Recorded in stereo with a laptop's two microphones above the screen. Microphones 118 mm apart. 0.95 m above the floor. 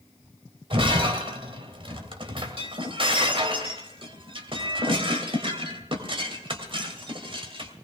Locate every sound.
0.7 s breaking glass: 50° right (ahead or behind), 2.5 m